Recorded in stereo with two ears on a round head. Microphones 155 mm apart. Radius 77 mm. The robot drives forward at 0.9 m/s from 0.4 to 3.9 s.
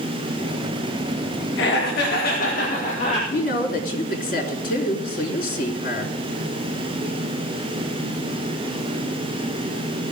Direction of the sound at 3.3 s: 60° left (ahead or behind).